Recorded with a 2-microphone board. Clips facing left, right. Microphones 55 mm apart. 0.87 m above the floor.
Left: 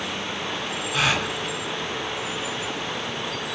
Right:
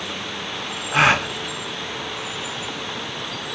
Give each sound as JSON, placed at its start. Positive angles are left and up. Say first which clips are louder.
{"t": 0.9, "sound": "a gasp", "louder": "right 7 dB", "side_deg": -35, "distance_m": 0.7}